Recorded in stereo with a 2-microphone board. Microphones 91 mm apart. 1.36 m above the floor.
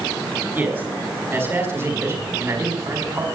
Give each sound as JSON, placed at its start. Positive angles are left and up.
{"t": 0.5, "sound": "a man speaking", "side_deg": -25, "distance_m": 6.0}